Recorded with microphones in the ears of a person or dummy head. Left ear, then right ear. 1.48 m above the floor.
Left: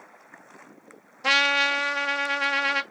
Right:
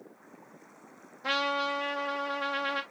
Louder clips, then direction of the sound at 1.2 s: Left 9 dB; 65° left (ahead or behind).